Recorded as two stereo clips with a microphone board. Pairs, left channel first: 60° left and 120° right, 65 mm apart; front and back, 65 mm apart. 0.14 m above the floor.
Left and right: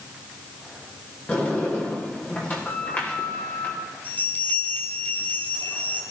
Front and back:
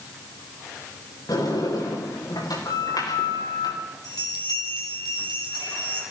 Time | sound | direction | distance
1.3 | a sliding door | 5° right | 7 m
4.0 | a bell | 5° right | 4.5 m